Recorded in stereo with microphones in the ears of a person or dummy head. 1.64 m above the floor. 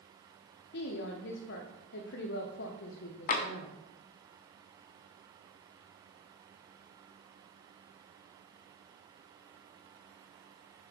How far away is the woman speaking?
About 0.9 m.